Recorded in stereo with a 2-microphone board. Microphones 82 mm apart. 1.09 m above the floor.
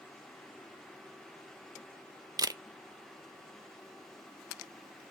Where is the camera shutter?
50° right (ahead or behind), 0.5 m.